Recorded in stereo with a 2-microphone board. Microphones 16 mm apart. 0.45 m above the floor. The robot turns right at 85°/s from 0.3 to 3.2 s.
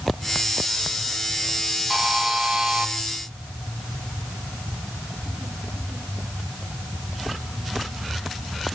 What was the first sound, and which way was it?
A buzzer, 150° right.